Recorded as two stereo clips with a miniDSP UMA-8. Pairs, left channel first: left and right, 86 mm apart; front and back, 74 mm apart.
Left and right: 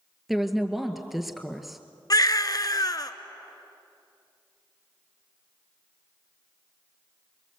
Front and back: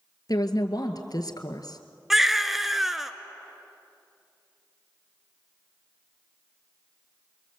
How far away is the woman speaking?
About 2 m.